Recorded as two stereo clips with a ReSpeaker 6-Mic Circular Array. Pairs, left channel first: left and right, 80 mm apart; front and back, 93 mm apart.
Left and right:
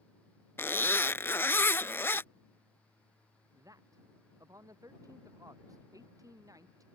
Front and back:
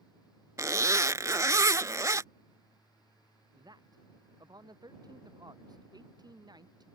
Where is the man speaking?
135° right.